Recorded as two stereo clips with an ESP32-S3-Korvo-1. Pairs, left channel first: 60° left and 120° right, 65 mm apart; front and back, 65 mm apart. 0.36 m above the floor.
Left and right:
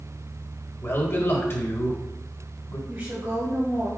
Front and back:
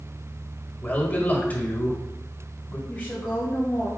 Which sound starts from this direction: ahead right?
A woman speaking, at 2.9 s.